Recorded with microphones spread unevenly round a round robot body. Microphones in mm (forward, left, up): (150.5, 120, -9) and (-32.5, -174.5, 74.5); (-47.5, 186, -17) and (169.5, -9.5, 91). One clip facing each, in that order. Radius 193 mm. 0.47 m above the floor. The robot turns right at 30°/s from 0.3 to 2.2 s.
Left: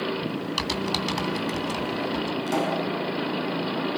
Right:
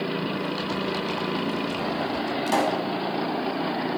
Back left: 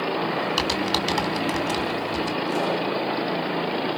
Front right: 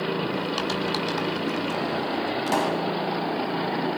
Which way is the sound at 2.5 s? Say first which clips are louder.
Right 2 dB, front right 1 dB; 60° right.